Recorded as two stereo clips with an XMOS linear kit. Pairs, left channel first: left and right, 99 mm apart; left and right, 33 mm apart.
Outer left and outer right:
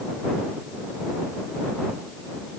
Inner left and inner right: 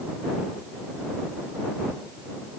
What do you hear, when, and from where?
Only background noise.